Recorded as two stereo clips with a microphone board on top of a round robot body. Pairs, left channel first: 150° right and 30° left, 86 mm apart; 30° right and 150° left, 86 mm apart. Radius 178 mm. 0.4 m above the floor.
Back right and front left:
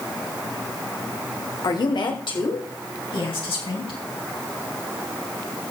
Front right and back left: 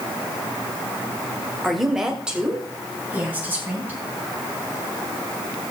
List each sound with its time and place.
1.6 s a woman speaking: 120° right, 2 m; by 4.0 s 145° right, 4.5 m